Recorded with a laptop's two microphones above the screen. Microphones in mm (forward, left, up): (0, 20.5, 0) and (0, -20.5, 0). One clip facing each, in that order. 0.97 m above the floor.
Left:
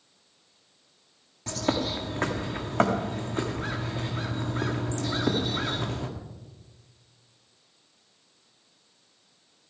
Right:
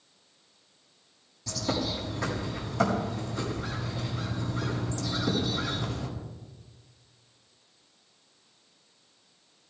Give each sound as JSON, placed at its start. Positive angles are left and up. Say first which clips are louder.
{"t": 1.5, "sound": "a bird", "louder": "left 3 dB", "side_deg": 45, "distance_m": 1.5}